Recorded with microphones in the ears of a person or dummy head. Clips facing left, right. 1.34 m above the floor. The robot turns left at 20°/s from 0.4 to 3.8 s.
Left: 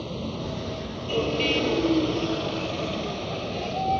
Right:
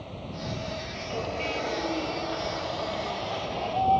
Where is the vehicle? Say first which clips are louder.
Left 6 dB; 65° left (ahead or behind); by 4.0 s 25° left (ahead or behind).